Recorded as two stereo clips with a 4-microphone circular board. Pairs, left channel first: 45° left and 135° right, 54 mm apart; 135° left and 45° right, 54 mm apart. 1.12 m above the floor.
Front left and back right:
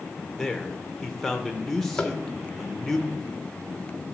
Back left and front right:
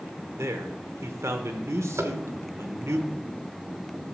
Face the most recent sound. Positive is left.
turn(degrees=-25)